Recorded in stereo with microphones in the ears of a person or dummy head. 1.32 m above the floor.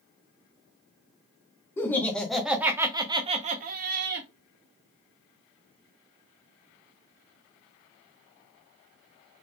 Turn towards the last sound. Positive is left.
turn(degrees=-75)  # may be behind; listen again after turning